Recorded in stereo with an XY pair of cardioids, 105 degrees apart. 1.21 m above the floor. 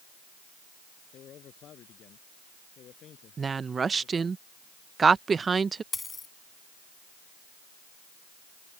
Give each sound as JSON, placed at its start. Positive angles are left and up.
{"t": 1.1, "sound": "a man speaking", "azimuth_deg": 65}
{"t": 3.4, "sound": "a woman speaking", "azimuth_deg": -35}
{"t": 5.9, "sound": "a dropped coin", "azimuth_deg": 25}